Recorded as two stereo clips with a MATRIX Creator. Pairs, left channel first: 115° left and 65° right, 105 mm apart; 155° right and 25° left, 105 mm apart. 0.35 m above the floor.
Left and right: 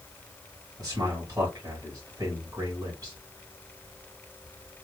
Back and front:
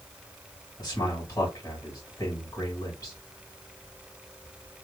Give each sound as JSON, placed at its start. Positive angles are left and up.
{"t": 0.8, "sound": "a man speaking", "azimuth_deg": -105, "distance_m": 2.5}